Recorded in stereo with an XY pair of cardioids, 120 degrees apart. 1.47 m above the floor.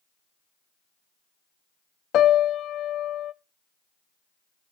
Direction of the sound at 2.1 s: 65° left.